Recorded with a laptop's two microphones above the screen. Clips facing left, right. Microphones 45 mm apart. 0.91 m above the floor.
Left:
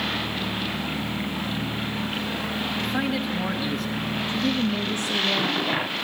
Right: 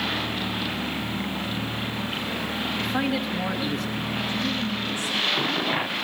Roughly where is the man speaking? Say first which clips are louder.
Right 1 dB; centre.